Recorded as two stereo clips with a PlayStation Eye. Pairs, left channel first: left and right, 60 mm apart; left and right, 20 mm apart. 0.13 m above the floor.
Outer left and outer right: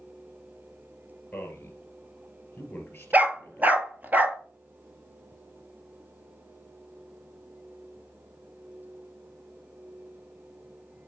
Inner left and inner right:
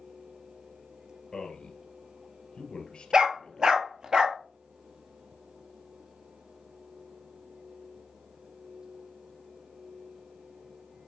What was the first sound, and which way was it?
A man speaking, 30° left (ahead or behind).